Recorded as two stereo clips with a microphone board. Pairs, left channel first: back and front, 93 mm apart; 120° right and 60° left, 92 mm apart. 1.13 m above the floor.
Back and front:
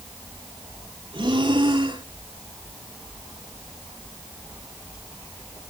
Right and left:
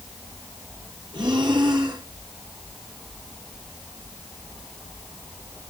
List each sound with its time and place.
1.1 s breathing: 30° left, 3 m